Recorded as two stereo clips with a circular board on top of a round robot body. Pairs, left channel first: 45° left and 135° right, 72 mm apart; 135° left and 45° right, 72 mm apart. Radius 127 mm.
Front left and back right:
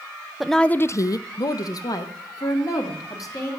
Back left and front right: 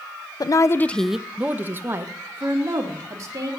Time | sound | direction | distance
0.4 | a woman speaking | 140° left | 0.6 m